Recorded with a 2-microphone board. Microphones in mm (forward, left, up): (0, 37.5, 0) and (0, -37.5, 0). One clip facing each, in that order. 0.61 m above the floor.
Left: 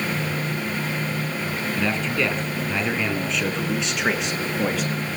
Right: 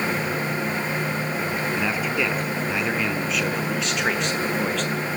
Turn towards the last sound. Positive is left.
turn(degrees=5)  # may be behind; listen again after turning